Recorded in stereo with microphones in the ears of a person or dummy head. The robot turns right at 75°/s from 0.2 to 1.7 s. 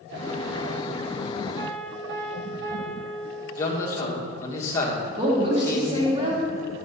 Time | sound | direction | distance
1.6 | a piano | 75° right (ahead or behind) | 2 m
3.6 | a man speaking | 20° left (ahead or behind) | 1.2 m
5.0 | a woman speaking | 30° right (ahead or behind) | 2 m